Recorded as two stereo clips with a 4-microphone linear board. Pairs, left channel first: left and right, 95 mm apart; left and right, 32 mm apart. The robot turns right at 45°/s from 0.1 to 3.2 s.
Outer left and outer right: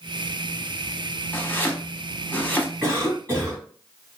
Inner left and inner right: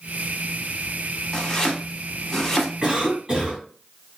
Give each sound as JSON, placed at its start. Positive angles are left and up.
{"t": 1.3, "sound": "chopping", "side_deg": 20, "distance_m": 0.7}
{"t": 2.8, "sound": "a cough", "side_deg": -20, "distance_m": 1.7}